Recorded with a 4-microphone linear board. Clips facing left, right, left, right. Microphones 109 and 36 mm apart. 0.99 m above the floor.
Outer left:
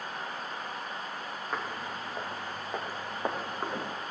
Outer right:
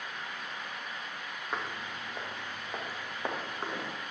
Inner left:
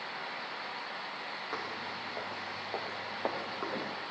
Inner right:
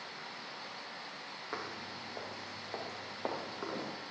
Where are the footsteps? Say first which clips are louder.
Outer left 1 dB, inner left 2 dB; 5° left (ahead or behind), 3 m; by 3.9 s 15° left (ahead or behind), 4.5 m.